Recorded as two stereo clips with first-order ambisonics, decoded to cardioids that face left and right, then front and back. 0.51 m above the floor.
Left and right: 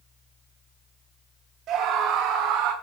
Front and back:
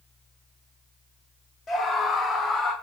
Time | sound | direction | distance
1.7 | a scream | 50° right | 2.0 m